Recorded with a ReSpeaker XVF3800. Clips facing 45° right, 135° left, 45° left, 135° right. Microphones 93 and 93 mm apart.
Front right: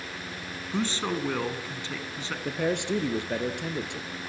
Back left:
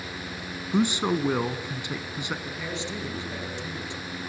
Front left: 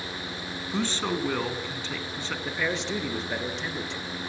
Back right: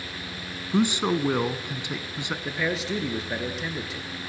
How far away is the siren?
I don't hear a siren.